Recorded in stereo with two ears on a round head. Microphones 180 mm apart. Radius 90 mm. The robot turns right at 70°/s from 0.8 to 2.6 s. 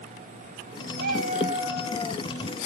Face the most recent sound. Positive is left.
turn(degrees=55)